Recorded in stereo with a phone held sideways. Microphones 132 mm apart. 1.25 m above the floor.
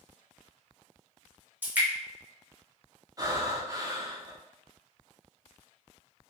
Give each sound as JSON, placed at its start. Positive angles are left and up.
{"t": 1.6, "sound": "dripping", "side_deg": -15, "distance_m": 1.1}
{"t": 3.2, "sound": "breathing", "side_deg": -25, "distance_m": 0.6}